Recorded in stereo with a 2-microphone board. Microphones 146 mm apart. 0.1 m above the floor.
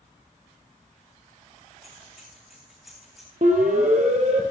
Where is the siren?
60° right (ahead or behind), 3 m; by 4.4 s 55° right (ahead or behind), 3 m.